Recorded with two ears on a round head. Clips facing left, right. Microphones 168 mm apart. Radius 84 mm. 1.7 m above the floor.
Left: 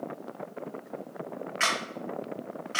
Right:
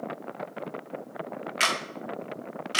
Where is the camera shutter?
45° right (ahead or behind), 0.8 m.